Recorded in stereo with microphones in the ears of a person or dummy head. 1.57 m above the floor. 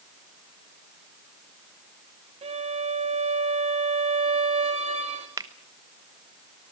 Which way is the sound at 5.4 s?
15° right (ahead or behind).